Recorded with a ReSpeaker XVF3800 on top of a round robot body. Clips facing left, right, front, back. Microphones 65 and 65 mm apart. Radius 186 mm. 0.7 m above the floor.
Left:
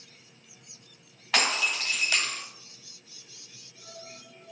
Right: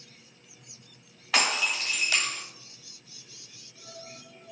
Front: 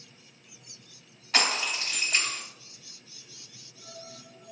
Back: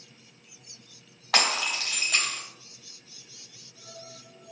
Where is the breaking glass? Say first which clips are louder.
Even, back 2 dB; straight behind, 2 m.